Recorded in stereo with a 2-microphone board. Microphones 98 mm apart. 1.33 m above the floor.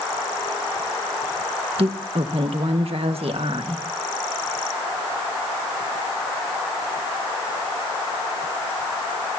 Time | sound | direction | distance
1.8 | a woman speaking | 70° right (ahead or behind) | 1.7 m